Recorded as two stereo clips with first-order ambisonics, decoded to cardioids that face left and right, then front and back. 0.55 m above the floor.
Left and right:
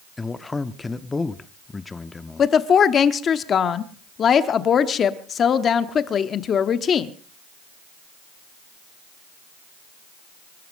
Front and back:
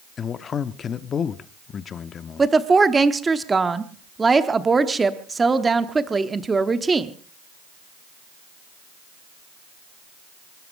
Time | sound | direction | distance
0.2 | a man speaking | 25° left | 0.6 m
2.4 | a woman speaking | 115° left | 0.9 m